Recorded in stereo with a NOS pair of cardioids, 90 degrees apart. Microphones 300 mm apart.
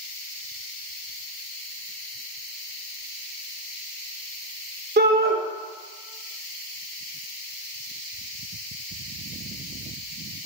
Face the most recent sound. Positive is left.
turn(degrees=-35)